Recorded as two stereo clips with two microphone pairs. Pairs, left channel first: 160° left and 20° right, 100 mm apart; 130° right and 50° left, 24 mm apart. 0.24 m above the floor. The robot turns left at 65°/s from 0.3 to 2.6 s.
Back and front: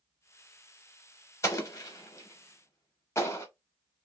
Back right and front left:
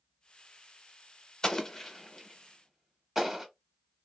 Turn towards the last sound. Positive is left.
turn(degrees=120)